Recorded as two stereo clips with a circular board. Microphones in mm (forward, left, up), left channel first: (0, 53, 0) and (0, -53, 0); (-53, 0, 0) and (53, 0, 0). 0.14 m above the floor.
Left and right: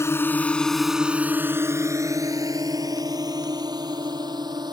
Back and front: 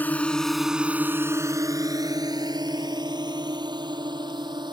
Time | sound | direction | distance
0.0 | a drone | 125° left | ?